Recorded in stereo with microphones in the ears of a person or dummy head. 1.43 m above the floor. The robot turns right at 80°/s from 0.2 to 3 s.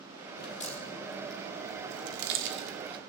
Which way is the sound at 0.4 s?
55° left (ahead or behind).